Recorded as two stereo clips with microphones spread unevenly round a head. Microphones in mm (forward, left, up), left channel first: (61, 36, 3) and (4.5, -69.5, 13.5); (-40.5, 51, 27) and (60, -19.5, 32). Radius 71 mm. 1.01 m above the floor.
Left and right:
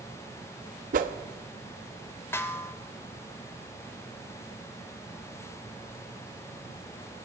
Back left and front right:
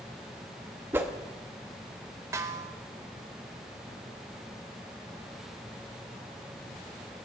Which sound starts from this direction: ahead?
A snare drum, at 2.3 s.